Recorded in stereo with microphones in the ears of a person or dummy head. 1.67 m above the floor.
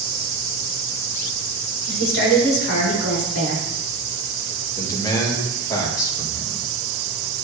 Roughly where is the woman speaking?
Left.